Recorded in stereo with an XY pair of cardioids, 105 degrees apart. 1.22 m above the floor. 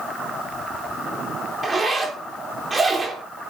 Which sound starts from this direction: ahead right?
A zipper, at 1.6 s.